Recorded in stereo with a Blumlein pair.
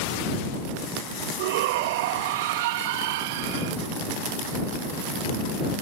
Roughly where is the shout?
Ahead right.